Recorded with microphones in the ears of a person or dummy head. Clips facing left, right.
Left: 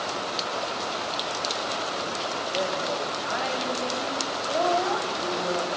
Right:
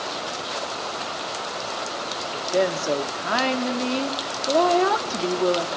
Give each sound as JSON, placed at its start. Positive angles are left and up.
{"t": 2.3, "sound": "a woman speaking", "side_deg": -85, "distance_m": 2.0}